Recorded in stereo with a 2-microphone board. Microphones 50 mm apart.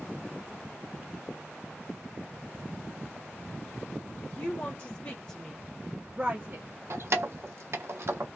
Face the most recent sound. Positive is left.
turn(degrees=-55)  # may be behind; listen again after turning